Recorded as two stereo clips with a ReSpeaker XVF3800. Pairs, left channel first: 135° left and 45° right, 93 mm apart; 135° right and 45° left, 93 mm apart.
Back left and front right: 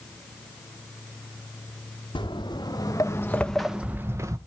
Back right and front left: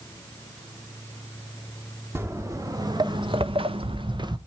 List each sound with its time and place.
2.1 s footsteps: 105° left, 1.7 m; by 4.4 s 5° left, 1.2 m